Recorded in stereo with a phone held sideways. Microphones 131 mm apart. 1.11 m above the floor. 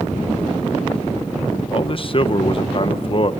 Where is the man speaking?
45° left (ahead or behind), 1.0 m.